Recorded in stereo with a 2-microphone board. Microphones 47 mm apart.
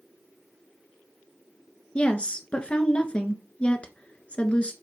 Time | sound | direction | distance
1.9 | a woman speaking | 25° left (ahead or behind) | 1.3 m